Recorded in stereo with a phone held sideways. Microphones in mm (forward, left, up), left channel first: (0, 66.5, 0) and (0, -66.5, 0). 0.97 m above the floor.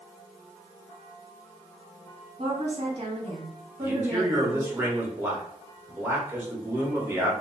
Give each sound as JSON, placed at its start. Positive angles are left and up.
{"t": 2.4, "sound": "a woman speaking", "side_deg": -45, "distance_m": 1.2}
{"t": 3.8, "sound": "a man speaking", "side_deg": -15, "distance_m": 1.0}